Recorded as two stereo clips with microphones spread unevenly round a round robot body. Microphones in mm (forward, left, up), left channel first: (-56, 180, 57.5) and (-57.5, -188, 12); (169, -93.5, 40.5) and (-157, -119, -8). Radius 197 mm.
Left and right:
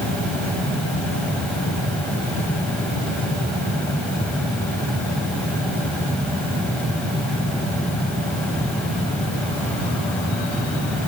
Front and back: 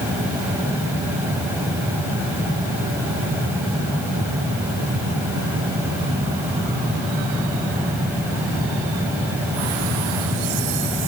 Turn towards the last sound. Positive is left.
No sound to turn to.